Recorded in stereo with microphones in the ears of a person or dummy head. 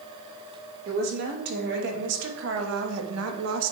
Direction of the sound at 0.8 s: 50° right (ahead or behind).